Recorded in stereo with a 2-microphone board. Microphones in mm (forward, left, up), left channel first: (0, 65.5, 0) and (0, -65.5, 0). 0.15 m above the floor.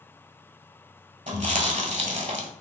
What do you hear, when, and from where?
1.3 s chewing: 65° right (ahead or behind), 0.9 m